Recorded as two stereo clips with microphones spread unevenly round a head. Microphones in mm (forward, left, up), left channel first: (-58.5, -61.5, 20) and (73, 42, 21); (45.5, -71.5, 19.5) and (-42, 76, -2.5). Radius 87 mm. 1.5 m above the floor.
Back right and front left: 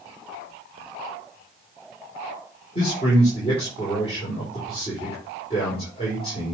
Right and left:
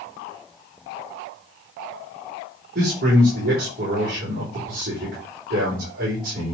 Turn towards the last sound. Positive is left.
turn(degrees=160)